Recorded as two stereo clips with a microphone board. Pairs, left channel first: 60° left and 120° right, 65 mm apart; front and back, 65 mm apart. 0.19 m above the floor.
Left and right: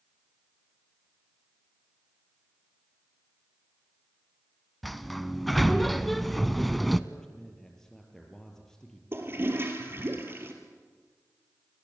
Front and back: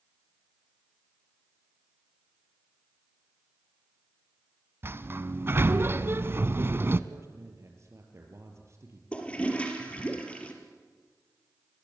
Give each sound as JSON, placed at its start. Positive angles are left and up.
{"t": 4.8, "sound": "a sliding door", "azimuth_deg": 150, "distance_m": 0.7}
{"t": 7.1, "sound": "a man speaking", "azimuth_deg": 140, "distance_m": 4.5}
{"t": 9.1, "sound": "a toilet flushing", "azimuth_deg": -70, "distance_m": 3.0}